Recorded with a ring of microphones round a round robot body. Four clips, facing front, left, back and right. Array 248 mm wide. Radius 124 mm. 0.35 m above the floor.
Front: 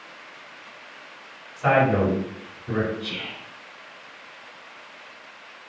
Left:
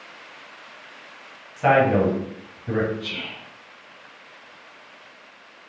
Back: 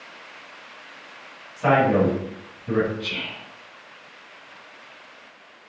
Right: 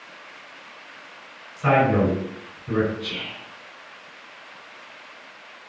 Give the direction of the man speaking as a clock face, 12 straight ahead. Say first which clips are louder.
Left 1 dB, back 1 dB; 9 o'clock.